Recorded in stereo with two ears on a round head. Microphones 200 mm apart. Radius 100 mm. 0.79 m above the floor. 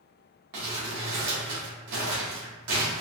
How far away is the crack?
I don't hear a crack.